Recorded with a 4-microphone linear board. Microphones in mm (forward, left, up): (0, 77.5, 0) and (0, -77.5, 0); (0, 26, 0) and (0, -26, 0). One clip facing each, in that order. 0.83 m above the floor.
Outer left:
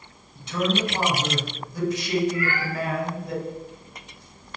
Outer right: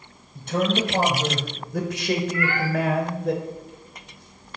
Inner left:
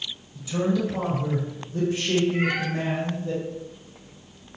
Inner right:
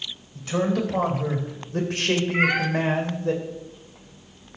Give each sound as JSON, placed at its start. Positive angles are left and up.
{"t": 0.3, "sound": "a man speaking", "side_deg": -50, "distance_m": 4.0}
{"t": 2.3, "sound": "a cat meowing", "side_deg": -75, "distance_m": 2.5}